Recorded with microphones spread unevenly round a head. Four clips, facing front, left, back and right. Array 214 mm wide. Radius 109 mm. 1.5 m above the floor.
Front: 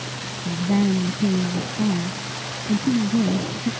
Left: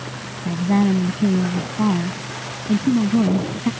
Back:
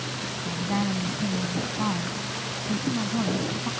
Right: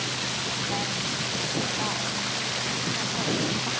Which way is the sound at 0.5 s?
55° left.